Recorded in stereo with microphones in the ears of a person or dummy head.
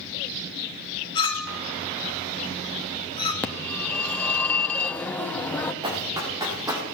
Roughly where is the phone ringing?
Centre.